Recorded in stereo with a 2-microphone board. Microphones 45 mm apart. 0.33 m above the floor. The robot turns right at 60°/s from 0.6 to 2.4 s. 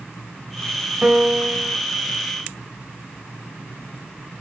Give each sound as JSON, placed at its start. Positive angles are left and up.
{"t": 1.0, "sound": "a piano", "azimuth_deg": -35, "distance_m": 1.9}